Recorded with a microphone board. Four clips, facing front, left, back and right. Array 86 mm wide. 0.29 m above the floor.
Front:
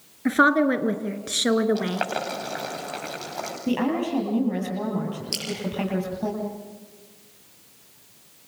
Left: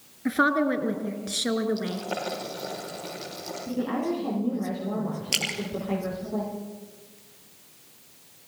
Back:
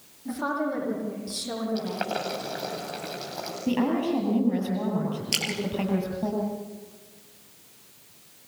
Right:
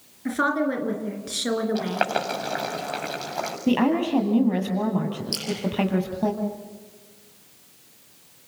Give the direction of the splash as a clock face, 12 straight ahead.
8 o'clock.